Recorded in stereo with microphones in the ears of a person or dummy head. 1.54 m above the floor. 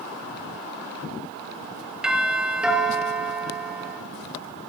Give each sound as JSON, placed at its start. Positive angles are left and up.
{"t": 2.0, "sound": "a doorbell", "side_deg": -5, "distance_m": 5.5}